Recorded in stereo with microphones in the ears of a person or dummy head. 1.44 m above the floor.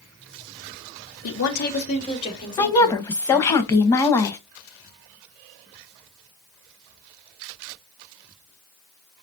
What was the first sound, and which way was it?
A woman speaking, 70° left (ahead or behind).